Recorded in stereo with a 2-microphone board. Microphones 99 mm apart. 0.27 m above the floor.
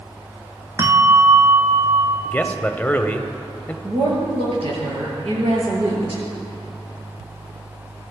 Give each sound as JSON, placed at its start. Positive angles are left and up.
{"t": 0.8, "sound": "a bell", "side_deg": -30, "distance_m": 1.2}
{"t": 2.2, "sound": "a man speaking", "side_deg": 15, "distance_m": 0.9}
{"t": 3.8, "sound": "a woman speaking", "side_deg": -75, "distance_m": 6.5}